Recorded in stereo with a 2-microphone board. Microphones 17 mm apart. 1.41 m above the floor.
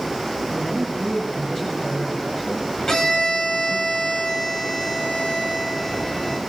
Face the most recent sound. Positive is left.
turn(degrees=40)  # may be behind; listen again after turning